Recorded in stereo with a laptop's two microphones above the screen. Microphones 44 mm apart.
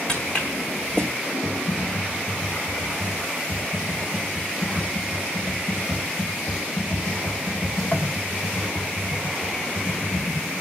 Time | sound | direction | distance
0.1 | footsteps | 20° left (ahead or behind) | 4 m
1.4 | typing on a keyboard | 75° left (ahead or behind) | 2 m